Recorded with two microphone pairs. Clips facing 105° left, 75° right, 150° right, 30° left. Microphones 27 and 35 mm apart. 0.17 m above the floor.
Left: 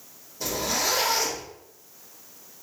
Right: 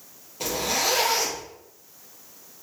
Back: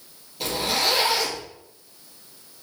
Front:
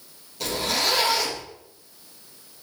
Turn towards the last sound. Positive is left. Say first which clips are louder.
# right 2 dB, back 1 dB
turn(degrees=-70)